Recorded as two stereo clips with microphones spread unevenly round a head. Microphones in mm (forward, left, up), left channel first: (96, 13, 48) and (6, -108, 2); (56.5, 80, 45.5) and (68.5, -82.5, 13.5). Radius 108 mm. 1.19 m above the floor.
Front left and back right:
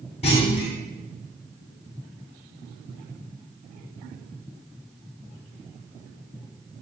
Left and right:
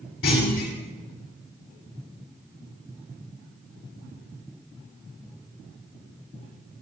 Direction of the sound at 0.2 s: 115° left.